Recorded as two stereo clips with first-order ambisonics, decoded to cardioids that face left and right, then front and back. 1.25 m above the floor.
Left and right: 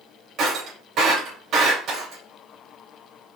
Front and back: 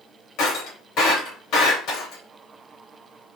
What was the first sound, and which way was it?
Breaking glass, 40° right.